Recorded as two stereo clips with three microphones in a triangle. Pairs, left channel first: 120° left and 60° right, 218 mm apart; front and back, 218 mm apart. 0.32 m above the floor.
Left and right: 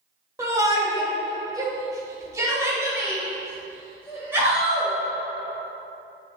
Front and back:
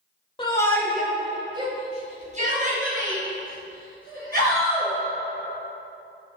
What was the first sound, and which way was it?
A shout, 10° right.